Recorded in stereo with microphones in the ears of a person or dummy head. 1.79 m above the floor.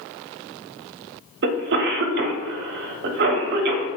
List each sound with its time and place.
1.4 s a cough: 65° right (ahead or behind), 0.7 m